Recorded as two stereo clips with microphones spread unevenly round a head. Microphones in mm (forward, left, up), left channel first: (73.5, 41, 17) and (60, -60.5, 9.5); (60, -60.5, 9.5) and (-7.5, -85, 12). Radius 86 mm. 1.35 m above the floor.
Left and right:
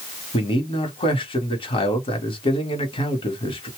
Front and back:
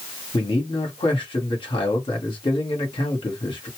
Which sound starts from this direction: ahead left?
A man speaking, at 0.3 s.